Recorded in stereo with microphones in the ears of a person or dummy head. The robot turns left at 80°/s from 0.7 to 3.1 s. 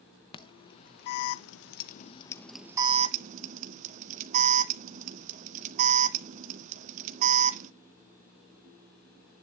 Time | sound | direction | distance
0.3 | an alarm | 35° left (ahead or behind) | 0.7 m